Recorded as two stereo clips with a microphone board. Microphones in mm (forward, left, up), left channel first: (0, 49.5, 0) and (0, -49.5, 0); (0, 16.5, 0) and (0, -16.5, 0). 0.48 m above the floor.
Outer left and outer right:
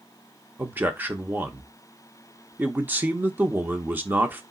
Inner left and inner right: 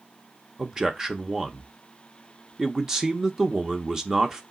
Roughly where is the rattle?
I don't hear a rattle.